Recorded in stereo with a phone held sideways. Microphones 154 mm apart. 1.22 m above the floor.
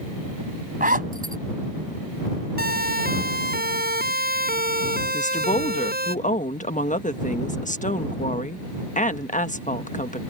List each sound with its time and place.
0.8 s a zipper: 70° right (ahead or behind)
2.6 s a siren: 85° right
5.1 s a woman speaking: 55° left (ahead or behind)